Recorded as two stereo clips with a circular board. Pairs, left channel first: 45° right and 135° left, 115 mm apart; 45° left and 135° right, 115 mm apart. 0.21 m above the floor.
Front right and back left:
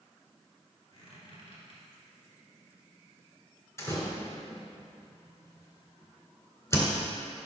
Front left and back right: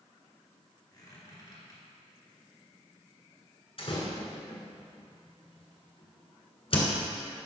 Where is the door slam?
20° left, 1.6 m.